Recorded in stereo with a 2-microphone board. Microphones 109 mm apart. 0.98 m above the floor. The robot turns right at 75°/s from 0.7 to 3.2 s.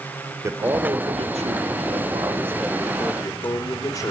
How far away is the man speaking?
About 3 m.